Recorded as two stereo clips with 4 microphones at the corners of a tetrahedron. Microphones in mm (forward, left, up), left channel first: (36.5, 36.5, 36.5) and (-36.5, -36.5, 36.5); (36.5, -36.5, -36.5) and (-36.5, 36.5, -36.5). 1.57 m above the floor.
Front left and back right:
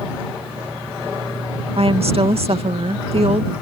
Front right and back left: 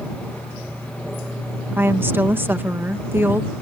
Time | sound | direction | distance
1.7 | a woman speaking | 155° right | ?